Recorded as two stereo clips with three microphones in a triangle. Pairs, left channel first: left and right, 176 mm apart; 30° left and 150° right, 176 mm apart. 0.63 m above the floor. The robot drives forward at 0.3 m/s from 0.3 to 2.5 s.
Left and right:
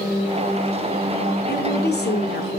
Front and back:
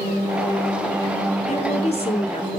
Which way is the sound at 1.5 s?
75° left.